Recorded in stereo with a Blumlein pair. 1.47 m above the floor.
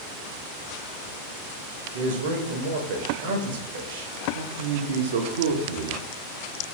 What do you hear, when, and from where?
1.9 s a man speaking: 55° right, 0.8 m
4.3 s a man speaking: 60° right, 0.6 m